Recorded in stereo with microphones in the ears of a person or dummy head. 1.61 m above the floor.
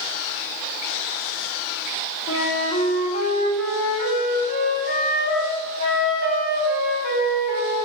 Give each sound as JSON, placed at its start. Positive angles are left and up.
{"t": 2.3, "sound": "a flute", "side_deg": 55, "distance_m": 1.5}